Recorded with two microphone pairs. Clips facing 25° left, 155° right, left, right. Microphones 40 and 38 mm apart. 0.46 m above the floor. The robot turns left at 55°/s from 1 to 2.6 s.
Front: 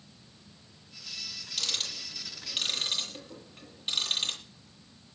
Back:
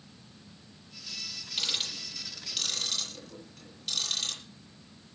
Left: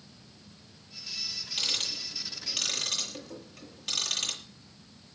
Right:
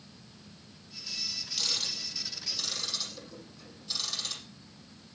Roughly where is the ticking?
Behind left.